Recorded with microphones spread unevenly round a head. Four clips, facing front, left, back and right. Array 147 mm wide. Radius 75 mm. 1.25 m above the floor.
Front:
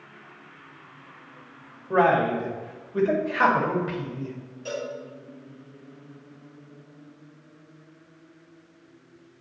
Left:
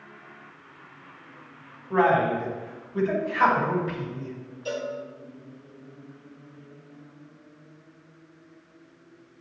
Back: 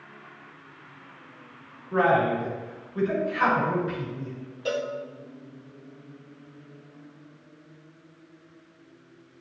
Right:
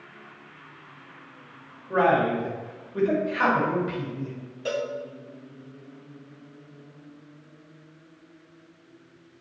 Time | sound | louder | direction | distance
1.9 | a man speaking | even, front 1 dB | 10° right | 2.5 m
4.7 | a cowbell | right 2 dB, back 4 dB | 135° right | 1.0 m